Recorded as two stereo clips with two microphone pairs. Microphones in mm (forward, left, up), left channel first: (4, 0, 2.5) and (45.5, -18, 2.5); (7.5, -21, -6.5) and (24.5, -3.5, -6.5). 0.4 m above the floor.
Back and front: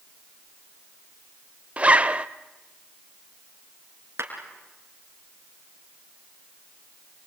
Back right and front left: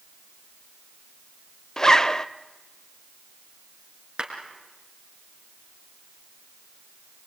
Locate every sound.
1.8 s a zipper: 75° right, 0.5 m
4.2 s a clap: 10° right, 4 m